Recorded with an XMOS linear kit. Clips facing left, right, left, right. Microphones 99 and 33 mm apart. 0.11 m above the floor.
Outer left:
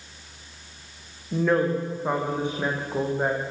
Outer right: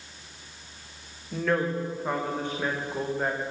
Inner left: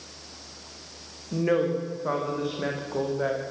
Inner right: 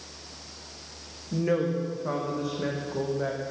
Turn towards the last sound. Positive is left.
turn(degrees=15)  # may be behind; listen again after turning